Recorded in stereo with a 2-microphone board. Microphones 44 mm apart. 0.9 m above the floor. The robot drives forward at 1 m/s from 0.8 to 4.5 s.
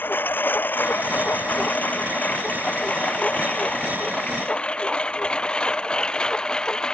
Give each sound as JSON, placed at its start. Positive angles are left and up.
{"t": 0.0, "sound": "a lawn mower", "side_deg": 55}